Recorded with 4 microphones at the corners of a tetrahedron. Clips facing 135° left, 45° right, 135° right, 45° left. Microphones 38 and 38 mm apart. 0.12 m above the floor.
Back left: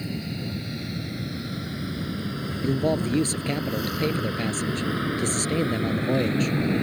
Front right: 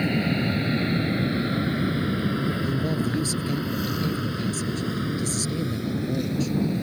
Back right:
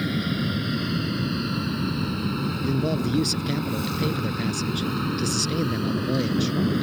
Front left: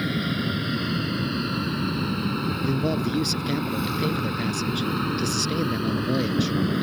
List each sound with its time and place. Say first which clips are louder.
0.0 s an aircraft: front right 8 dB, even; 35° right; by 6.8 s 125° left
2.6 s a man speaking: back left 2 dB, back right 1 dB; 130° left